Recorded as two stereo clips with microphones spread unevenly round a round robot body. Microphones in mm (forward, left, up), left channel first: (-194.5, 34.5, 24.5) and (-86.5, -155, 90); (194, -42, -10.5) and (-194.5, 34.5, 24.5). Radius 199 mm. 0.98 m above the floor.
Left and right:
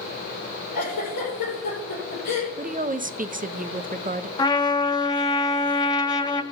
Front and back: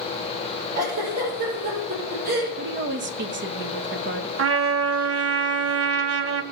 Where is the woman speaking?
125° right, 0.9 m.